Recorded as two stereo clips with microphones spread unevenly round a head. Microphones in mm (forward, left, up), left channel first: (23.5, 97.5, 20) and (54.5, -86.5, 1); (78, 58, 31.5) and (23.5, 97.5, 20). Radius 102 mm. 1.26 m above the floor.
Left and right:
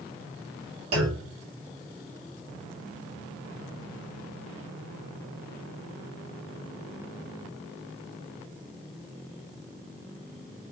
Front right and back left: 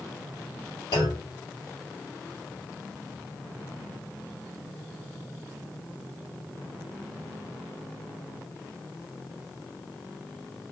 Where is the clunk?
75° right, 1.5 m.